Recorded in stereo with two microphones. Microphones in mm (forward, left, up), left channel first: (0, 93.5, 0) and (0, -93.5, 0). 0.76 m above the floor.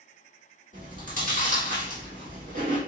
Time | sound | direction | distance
0.7 | chewing | 45° right (ahead or behind) | 1.7 m